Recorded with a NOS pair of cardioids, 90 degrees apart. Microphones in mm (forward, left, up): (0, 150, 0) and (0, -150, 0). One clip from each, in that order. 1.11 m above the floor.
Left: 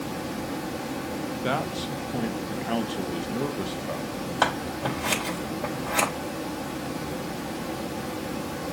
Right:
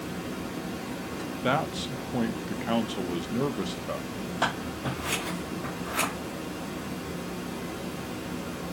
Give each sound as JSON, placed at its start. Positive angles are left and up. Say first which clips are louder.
{"t": 0.0, "sound": "running water", "louder": "left 3 dB", "azimuth_deg": 60, "distance_m": 1.5}
{"t": 1.4, "sound": "a man speaking", "louder": "right 2 dB", "azimuth_deg": 0, "distance_m": 0.5}
{"t": 4.4, "sound": "scissors", "louder": "left 4 dB", "azimuth_deg": 65, "distance_m": 3.5}